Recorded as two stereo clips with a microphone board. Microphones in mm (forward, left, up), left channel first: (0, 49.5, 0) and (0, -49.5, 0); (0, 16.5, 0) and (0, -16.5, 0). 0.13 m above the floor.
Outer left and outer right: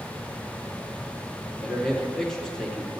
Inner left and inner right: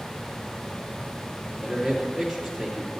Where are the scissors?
No scissors in this recording.